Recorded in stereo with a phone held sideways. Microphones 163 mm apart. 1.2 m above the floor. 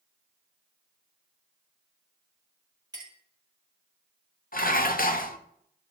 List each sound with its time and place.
2.9 s a clink: 20° right (ahead or behind), 2.5 m
4.5 s dishes clattering: 60° left (ahead or behind), 0.7 m